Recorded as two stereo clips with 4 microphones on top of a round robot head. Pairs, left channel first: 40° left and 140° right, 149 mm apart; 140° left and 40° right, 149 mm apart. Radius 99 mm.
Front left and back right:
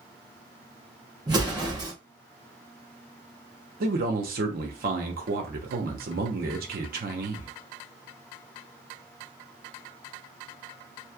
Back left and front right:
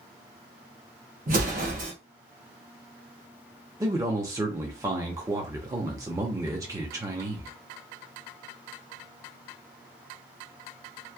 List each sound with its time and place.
1.3 s an explosion: 75° right, 1.0 m
3.8 s a man speaking: 110° right, 0.8 m